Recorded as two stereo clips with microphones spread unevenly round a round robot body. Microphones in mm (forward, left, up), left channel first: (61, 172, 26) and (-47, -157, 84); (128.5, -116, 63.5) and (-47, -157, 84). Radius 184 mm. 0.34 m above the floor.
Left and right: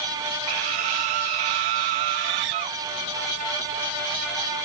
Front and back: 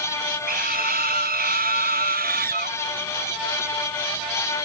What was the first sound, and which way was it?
A scream, 130° right.